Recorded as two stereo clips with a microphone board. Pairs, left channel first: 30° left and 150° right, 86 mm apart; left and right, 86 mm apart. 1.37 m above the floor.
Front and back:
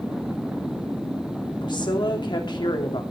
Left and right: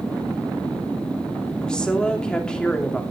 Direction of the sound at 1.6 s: 10° left.